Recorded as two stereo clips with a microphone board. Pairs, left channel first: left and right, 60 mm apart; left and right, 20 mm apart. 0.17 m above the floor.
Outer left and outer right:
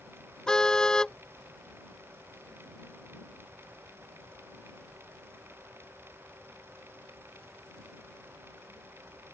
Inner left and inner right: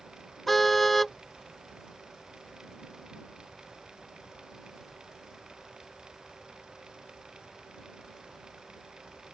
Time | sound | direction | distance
0.5 | a car horn | 10° left (ahead or behind) | ?